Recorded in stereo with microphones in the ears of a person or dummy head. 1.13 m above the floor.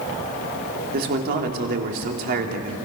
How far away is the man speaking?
About 2.5 m.